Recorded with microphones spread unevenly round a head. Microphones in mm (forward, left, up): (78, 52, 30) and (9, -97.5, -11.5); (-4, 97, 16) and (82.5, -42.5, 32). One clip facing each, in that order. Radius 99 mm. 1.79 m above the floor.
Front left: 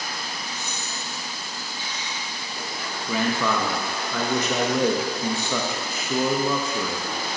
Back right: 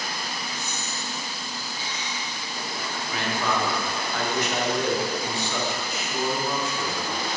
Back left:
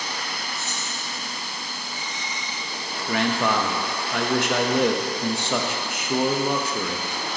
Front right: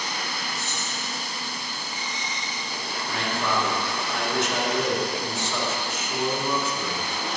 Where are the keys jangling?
70° left, 3 m.